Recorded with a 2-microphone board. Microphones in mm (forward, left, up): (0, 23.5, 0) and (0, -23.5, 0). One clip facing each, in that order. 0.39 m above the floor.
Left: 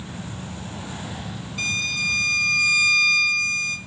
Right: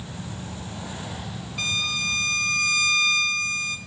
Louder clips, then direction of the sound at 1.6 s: Left 2 dB; 5° right (ahead or behind).